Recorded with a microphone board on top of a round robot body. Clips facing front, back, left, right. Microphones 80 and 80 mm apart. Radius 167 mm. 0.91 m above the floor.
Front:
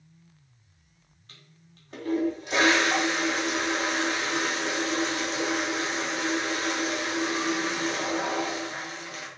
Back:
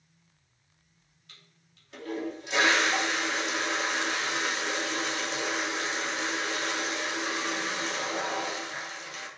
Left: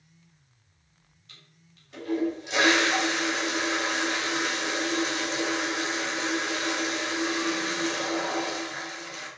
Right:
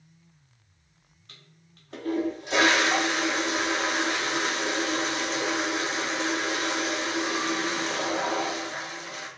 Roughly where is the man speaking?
No man speaking in this recording.